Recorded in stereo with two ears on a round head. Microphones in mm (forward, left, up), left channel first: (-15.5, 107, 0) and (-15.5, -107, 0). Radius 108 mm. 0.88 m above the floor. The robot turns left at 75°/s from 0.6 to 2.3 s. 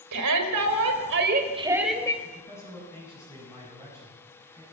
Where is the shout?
80° right, 3.5 m; by 2.1 s 160° left, 3.5 m.